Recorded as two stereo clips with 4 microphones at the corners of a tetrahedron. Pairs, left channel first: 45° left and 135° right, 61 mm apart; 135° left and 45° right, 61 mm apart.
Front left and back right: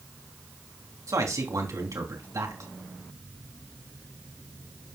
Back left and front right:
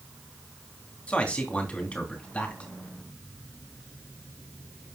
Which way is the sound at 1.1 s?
155° right.